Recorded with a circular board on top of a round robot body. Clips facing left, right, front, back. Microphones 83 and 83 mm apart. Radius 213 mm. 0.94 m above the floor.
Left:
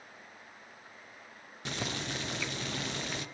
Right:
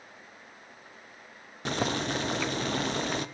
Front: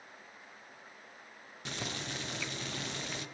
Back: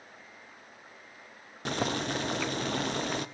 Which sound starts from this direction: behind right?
Boiling, at 1.6 s.